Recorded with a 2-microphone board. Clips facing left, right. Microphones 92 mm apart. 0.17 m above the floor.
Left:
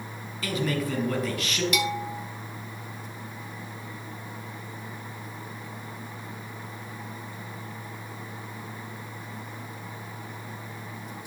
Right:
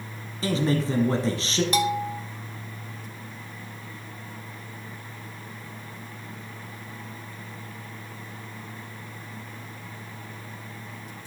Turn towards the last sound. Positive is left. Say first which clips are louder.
# right 4 dB
turn(degrees=-35)  # may be behind; listen again after turning